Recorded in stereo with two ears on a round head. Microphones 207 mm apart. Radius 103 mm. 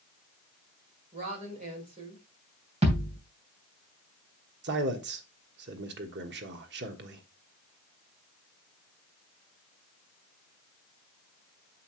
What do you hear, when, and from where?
1.1 s a woman speaking: 30° right (ahead or behind), 4 m
2.8 s a thud: 30° right (ahead or behind), 3 m
4.6 s a man speaking: 50° right (ahead or behind), 1.2 m